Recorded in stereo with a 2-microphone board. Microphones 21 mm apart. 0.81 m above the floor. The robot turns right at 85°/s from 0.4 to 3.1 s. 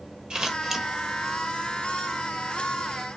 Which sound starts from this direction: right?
Scissors, at 0.3 s.